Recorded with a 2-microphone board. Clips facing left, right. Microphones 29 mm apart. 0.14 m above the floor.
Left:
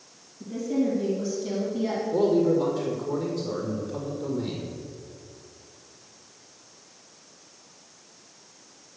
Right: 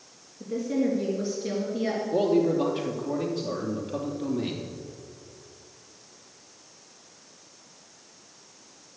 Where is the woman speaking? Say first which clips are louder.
Even; 45° right (ahead or behind), 3 m.